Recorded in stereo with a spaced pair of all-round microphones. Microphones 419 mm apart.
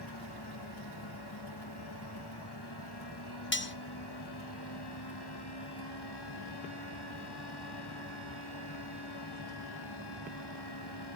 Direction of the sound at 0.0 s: 70° left (ahead or behind).